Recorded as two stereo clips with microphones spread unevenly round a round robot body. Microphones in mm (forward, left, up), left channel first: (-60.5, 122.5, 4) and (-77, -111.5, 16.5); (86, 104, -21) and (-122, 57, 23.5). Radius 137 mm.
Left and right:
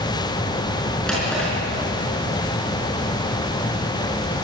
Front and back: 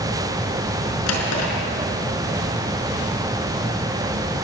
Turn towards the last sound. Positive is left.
turn(degrees=0)